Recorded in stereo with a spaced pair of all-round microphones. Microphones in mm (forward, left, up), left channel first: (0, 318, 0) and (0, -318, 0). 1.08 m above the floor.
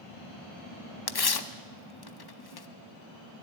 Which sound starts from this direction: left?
Tearing paper, at 1.1 s.